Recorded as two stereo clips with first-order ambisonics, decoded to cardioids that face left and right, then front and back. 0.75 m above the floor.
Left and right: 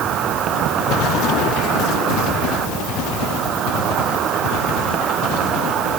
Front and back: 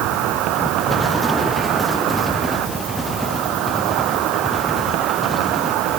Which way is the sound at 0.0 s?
145° right.